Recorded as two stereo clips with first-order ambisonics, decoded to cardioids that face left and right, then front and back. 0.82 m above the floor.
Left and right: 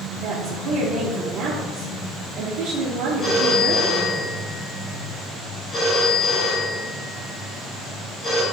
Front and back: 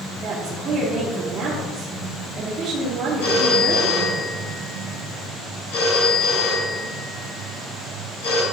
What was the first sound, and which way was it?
A woman speaking, 130° right.